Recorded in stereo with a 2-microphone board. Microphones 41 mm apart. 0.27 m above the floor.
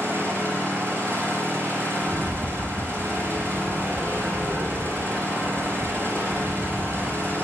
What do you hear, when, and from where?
0.0 s an engine running: 70° right (ahead or behind), 5.5 m
2.0 s a rattle: 50° right (ahead or behind), 1.4 m